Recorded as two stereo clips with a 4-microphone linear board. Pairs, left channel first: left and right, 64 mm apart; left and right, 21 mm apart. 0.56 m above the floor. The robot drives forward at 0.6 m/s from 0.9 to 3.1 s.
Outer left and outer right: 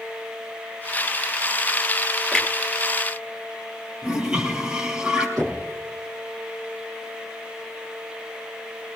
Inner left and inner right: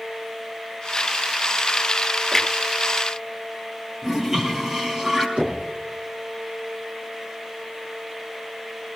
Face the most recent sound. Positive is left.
turn(degrees=-75)  # may be behind; listen again after turning